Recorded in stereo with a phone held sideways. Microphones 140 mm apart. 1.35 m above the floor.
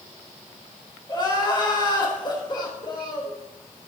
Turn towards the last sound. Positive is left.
turn(degrees=30)  # may be behind; listen again after turning